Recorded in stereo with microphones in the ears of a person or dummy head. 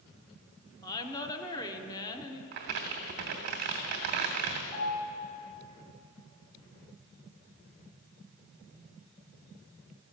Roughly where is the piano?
Left.